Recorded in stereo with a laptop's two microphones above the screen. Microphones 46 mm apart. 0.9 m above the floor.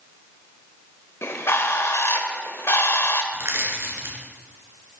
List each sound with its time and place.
1.2 s a bird: 70° left (ahead or behind), 1.2 m
3.3 s crushing: 60° right (ahead or behind), 3 m